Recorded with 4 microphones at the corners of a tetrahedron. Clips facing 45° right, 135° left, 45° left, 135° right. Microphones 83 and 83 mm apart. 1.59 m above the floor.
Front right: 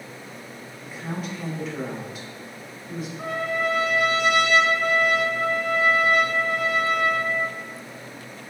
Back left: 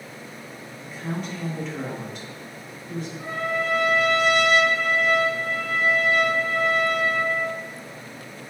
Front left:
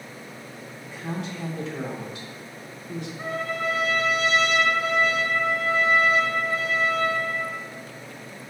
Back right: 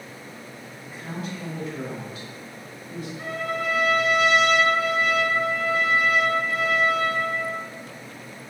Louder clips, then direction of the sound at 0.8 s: Back left 1 dB, front left 2 dB; 40° left.